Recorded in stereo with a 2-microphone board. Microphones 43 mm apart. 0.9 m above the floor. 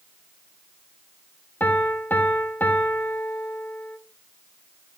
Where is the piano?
50° left (ahead or behind), 0.9 m.